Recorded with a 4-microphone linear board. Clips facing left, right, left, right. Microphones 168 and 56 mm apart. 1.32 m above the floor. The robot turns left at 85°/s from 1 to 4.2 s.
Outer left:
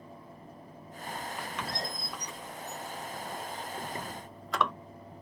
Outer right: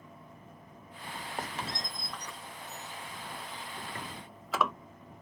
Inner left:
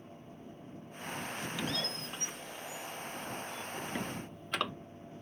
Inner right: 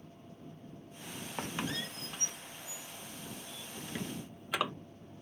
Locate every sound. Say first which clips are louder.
1.4 s a squeak: outer right 2 dB, inner right 2 dB; 45° right (ahead or behind); by 4.7 s 5° right (ahead or behind)